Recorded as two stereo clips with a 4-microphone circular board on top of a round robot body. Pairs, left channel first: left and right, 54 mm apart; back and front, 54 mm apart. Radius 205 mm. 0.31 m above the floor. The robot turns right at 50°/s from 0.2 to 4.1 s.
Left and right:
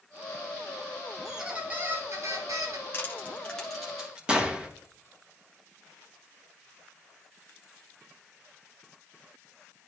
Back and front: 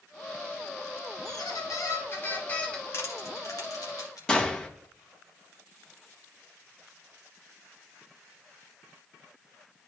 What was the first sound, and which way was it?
A squeak, 175° right.